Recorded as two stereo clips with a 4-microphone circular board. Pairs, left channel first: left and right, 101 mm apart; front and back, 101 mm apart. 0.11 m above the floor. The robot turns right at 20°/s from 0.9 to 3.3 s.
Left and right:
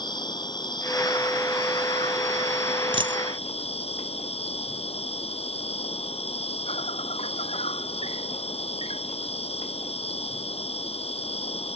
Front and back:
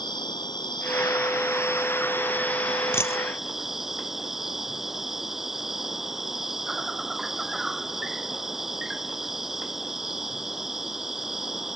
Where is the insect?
45° left; by 11.8 s 95° left.